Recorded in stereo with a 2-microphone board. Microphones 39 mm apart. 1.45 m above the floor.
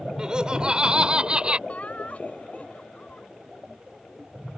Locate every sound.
0.2 s laughter: 20° right (ahead or behind); by 1.6 s 30° right (ahead or behind)
1.7 s laughter: 40° left (ahead or behind)